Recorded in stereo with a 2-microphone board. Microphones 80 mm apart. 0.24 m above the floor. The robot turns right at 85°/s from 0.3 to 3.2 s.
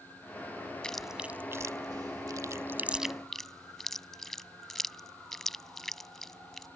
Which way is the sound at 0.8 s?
10° left (ahead or behind).